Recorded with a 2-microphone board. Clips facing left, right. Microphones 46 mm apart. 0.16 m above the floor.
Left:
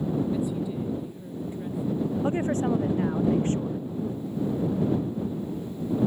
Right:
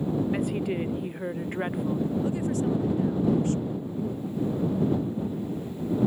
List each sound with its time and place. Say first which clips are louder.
0.3 s a woman speaking: right 1 dB; 60° right (ahead or behind)
2.2 s a woman speaking: left 2 dB; 35° left (ahead or behind)